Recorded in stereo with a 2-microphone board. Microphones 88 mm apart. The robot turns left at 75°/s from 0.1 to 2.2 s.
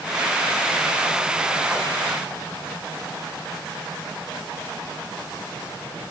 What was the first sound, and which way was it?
Only background noise.